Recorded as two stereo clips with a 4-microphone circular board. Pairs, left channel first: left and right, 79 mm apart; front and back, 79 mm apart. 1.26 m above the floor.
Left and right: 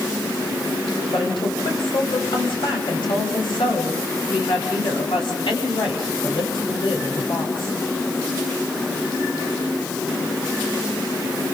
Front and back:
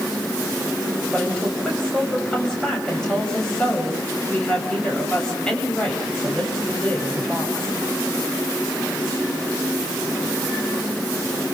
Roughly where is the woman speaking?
Left.